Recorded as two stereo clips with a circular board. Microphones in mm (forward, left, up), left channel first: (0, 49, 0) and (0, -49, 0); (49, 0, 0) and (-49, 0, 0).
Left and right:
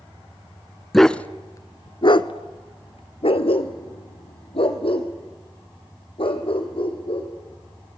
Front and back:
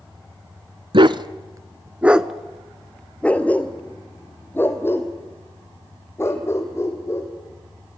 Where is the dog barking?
Straight behind, 0.7 m; by 7.3 s 60° left, 4 m.